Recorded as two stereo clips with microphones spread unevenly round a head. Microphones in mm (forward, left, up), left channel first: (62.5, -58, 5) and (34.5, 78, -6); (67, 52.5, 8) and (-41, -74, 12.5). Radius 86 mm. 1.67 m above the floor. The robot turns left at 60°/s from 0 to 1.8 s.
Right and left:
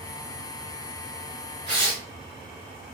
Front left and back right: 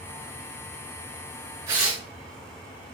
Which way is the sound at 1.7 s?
160° left.